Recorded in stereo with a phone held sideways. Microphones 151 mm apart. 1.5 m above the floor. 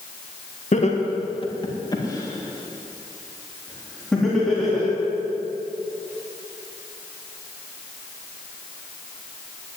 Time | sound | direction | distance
0.7 | laughter | 55° left (ahead or behind) | 1.9 m